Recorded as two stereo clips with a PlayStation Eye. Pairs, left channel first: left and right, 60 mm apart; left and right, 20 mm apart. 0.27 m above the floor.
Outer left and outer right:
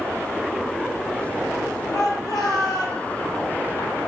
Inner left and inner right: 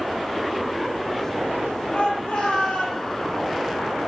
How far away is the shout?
About 9.5 m.